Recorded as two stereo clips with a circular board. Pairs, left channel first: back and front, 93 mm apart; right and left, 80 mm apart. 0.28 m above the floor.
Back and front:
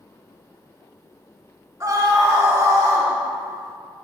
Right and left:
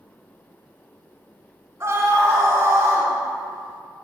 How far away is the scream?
About 2.5 m.